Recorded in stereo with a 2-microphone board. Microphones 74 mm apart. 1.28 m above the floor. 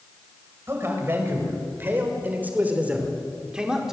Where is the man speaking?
35° right (ahead or behind), 7 m; by 4.0 s 5° right (ahead or behind), 4 m.